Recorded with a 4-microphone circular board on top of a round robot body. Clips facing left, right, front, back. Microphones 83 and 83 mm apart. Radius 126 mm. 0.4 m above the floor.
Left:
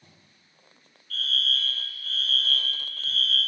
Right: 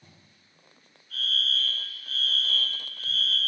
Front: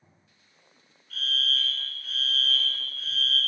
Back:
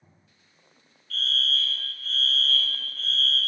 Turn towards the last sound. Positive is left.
turn(degrees=-60)